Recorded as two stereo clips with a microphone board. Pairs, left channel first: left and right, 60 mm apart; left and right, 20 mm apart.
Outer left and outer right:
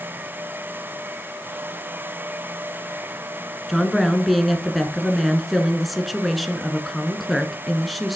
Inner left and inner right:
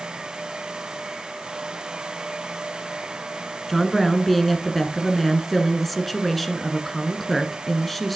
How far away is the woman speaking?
About 1.1 m.